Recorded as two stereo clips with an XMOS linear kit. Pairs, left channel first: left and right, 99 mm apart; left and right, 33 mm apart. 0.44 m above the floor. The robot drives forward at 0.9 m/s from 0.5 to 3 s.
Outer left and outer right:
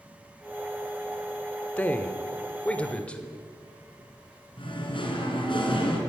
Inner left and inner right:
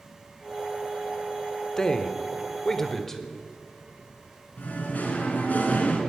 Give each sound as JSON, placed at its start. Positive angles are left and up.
{"t": 1.8, "sound": "a man speaking", "side_deg": 15, "distance_m": 0.9}
{"t": 4.6, "sound": "singing", "side_deg": 60, "distance_m": 3.5}